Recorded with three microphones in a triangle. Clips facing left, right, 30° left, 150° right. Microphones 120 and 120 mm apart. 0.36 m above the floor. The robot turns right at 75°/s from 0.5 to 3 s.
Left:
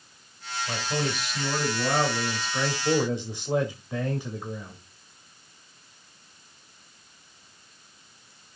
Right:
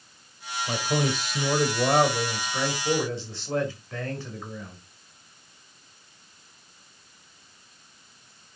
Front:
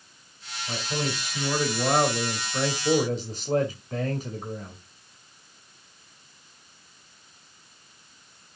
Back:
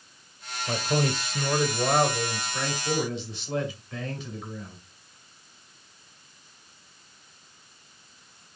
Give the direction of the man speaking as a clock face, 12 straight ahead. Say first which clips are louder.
Right 3 dB, back 4 dB; 5 o'clock.